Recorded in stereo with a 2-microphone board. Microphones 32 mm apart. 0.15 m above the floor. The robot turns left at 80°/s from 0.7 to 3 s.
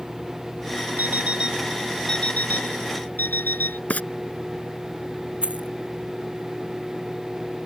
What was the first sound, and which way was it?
An alarm clock, 115° right.